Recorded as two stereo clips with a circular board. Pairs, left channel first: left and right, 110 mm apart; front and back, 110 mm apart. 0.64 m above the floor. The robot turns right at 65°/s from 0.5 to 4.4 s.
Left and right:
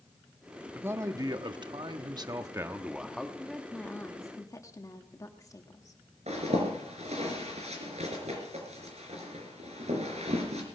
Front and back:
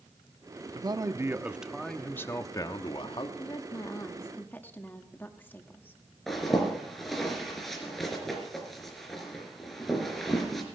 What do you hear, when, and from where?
0.8 s a man speaking: 155° right, 0.9 m; by 3.3 s 10° left, 0.9 m
3.4 s a woman speaking: 5° right, 1.3 m; by 6.0 s 60° left, 1.3 m
6.3 s a zipper: 90° right, 3.5 m